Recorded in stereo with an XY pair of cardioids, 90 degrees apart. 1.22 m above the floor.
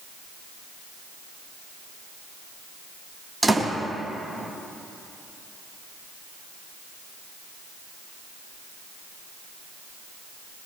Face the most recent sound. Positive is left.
turn(degrees=-10)